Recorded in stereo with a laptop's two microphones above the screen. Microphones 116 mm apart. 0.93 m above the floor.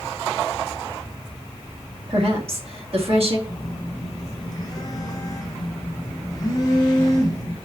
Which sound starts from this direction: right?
A woman speaking, at 2.1 s.